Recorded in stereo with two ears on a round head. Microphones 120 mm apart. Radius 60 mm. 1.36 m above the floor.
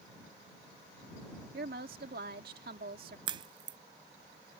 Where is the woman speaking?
85° right.